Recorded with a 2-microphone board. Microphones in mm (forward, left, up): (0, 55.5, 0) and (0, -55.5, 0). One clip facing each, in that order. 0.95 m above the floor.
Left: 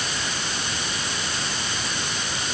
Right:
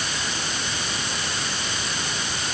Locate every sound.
Only background noise.